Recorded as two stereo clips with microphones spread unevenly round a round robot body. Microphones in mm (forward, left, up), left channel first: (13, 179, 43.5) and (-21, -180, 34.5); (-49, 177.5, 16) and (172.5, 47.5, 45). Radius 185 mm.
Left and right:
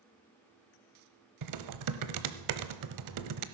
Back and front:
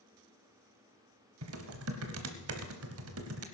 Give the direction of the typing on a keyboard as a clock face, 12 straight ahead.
2 o'clock.